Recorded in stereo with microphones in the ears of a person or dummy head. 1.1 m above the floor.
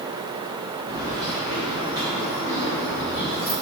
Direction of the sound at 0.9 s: 15° right (ahead or behind).